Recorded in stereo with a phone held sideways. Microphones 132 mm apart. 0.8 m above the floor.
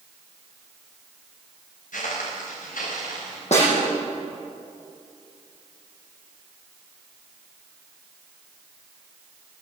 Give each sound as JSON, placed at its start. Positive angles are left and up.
{"t": 1.9, "sound": "footsteps", "side_deg": 80, "distance_m": 7.5}
{"t": 3.5, "sound": "a snare drum", "side_deg": 60, "distance_m": 9.0}